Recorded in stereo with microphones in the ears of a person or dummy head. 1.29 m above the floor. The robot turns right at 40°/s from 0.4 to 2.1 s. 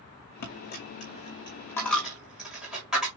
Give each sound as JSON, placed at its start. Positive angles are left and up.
{"t": 0.4, "sound": "a dropped coin", "side_deg": 50, "distance_m": 1.7}